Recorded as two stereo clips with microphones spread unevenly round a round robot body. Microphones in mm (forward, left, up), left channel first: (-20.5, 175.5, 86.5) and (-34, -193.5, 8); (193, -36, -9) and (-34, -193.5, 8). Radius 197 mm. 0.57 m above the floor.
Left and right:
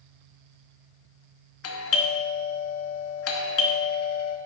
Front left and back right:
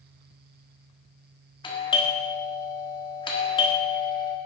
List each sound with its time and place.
1.6 s a doorbell: 70° left, 1.3 m